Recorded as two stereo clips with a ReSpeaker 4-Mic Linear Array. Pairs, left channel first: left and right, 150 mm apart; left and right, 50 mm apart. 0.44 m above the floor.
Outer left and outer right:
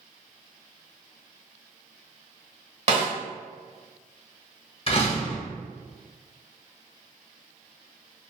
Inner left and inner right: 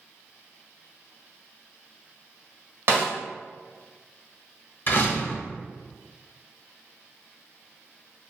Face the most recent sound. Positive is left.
turn(degrees=40)  # may be behind; listen again after turning